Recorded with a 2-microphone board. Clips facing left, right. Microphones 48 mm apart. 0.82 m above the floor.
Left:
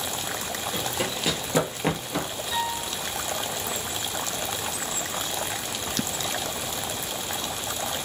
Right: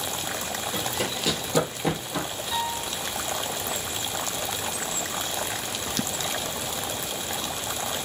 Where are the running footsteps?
5° left (ahead or behind), 1.2 m; by 2.3 s 40° left (ahead or behind), 1.0 m.